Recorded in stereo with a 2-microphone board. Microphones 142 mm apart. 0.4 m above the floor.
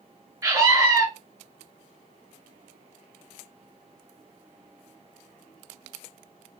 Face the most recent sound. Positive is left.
turn(degrees=-25)  # may be behind; listen again after turning